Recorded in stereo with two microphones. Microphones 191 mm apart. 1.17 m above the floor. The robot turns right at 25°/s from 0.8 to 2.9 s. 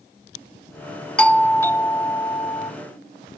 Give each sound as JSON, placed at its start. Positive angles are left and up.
{"t": 1.2, "sound": "a doorbell", "azimuth_deg": 5, "distance_m": 0.6}